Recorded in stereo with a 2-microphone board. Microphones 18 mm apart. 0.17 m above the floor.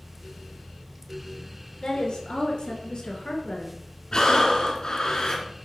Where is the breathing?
50° left (ahead or behind), 2 m.